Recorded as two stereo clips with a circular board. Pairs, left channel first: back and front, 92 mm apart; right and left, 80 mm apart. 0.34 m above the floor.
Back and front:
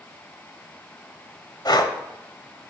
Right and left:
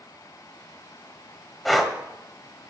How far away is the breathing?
About 1.2 m.